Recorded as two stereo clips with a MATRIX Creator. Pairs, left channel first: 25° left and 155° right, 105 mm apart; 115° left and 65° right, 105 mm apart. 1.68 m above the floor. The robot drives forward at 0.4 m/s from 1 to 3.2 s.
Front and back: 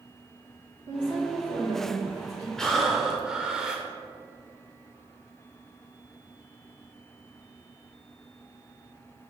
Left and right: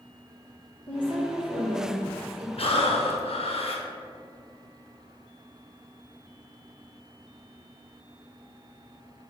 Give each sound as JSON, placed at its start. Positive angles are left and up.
{"t": 0.9, "sound": "a woman speaking", "azimuth_deg": -30, "distance_m": 2.5}
{"t": 2.6, "sound": "breathing", "azimuth_deg": 105, "distance_m": 0.9}